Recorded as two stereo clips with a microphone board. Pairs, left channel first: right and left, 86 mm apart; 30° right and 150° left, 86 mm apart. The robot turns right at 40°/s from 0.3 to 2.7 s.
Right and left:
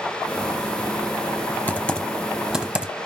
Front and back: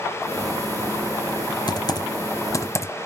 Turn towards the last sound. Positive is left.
turn(degrees=15)